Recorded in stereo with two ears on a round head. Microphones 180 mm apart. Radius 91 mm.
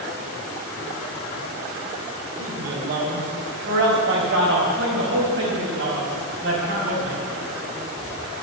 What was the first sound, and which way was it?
A man speaking, 55° right (ahead or behind).